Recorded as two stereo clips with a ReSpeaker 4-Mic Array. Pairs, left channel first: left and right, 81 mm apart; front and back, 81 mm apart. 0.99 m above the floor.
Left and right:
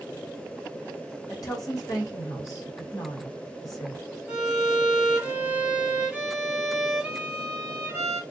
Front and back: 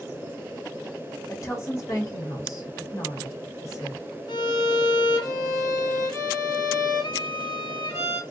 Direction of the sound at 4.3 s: 15° right.